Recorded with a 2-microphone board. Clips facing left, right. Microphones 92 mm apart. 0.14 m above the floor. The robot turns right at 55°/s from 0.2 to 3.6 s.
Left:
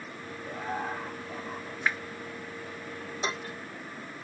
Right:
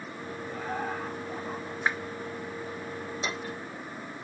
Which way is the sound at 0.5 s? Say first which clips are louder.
Even; 145° left.